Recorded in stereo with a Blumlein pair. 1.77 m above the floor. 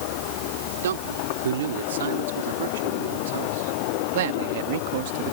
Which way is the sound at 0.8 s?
65° right.